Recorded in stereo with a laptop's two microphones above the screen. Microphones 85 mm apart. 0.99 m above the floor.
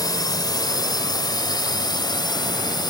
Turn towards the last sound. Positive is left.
turn(degrees=55)  # may be behind; listen again after turning